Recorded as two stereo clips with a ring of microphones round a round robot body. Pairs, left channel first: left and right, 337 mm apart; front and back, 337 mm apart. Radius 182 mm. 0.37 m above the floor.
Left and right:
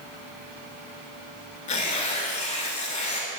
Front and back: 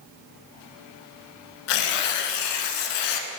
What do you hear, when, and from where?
1.7 s tearing paper: 15° left, 0.7 m